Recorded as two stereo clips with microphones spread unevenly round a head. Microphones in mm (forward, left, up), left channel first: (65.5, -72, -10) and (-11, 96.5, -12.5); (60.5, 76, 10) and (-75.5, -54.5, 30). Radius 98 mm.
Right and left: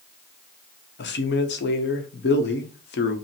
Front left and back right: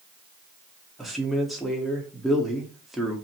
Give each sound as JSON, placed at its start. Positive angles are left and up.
{"t": 1.0, "sound": "a man speaking", "azimuth_deg": -50, "distance_m": 0.9}